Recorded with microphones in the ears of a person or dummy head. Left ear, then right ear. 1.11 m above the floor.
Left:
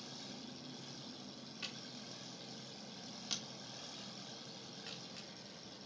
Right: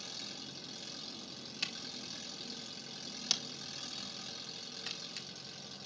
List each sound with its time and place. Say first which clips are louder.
0.0 s an engine running: right 6 dB; 30° right (ahead or behind), 4 m
1.6 s a camera shutter: right 8 dB; 60° right (ahead or behind), 1.9 m